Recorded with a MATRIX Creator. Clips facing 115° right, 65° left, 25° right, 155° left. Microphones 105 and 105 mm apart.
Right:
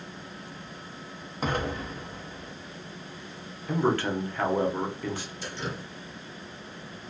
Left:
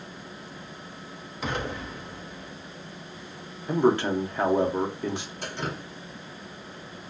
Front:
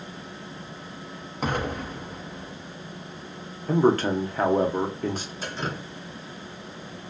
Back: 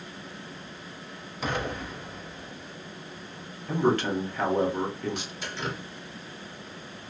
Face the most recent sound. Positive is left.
turn(degrees=30)